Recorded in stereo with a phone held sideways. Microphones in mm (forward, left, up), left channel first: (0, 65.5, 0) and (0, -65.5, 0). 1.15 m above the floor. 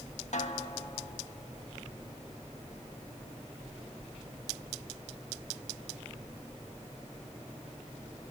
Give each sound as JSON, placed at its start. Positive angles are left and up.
{"t": 0.3, "sound": "a snare drum", "side_deg": 70, "distance_m": 1.6}